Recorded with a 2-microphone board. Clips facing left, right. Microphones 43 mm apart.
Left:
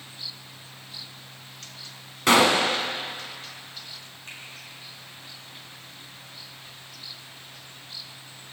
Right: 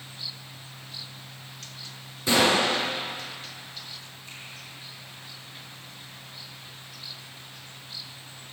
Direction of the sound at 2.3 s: 70° left (ahead or behind).